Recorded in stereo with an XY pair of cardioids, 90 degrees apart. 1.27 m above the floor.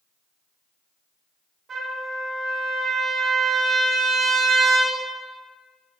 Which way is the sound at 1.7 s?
60° right.